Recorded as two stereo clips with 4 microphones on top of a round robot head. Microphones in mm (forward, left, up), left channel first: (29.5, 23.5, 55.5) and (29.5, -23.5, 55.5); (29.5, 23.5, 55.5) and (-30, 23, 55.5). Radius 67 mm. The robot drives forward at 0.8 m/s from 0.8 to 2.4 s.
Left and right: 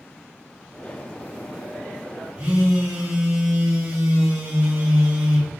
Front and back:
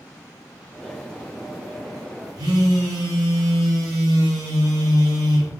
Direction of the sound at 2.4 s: 155° right.